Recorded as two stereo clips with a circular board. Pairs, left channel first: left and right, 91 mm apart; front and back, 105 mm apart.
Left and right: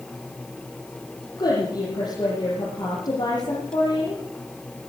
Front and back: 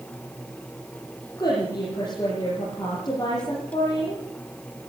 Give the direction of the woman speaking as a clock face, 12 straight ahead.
10 o'clock.